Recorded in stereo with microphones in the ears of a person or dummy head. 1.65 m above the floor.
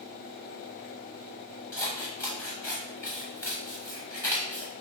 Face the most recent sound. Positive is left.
turn(degrees=15)  # may be behind; listen again after turning